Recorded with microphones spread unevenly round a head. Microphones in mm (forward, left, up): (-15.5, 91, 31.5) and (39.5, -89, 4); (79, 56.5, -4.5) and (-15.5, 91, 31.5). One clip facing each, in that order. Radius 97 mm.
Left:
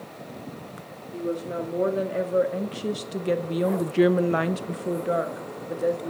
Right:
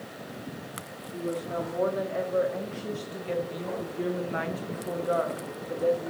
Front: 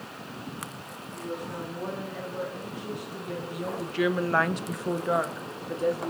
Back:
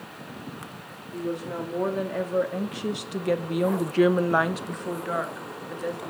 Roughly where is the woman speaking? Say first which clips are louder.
Left 3 dB, back 5 dB; behind.